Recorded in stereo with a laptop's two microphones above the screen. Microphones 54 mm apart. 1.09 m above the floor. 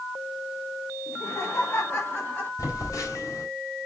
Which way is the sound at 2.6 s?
85° left.